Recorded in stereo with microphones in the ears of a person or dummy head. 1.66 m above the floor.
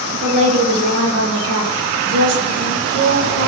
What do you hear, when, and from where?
0.2 s a woman speaking: 35° right (ahead or behind), 1.2 m; by 3.5 s 50° right (ahead or behind), 1.6 m